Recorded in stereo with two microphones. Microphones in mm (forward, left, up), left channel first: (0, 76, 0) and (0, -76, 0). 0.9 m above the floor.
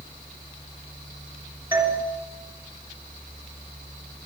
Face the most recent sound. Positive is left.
turn(degrees=-15)  # may be behind; listen again after turning